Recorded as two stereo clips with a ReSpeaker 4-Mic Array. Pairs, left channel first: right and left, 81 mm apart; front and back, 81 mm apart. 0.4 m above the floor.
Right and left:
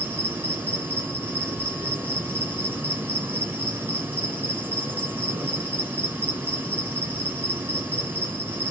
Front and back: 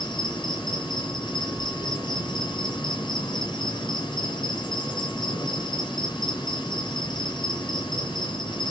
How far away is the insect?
About 3 m.